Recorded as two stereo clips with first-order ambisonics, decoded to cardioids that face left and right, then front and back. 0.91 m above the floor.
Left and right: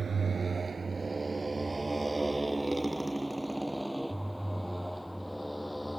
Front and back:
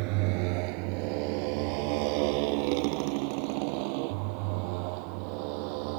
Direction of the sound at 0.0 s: 160° right.